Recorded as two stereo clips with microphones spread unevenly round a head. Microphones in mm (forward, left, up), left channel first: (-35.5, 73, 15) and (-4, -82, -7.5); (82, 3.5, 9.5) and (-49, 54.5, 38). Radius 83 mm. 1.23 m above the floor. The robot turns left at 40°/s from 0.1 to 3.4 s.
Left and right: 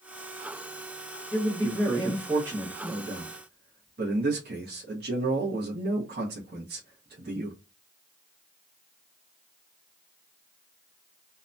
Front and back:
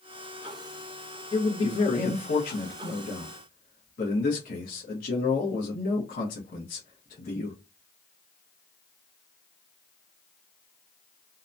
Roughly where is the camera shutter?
I don't hear a camera shutter.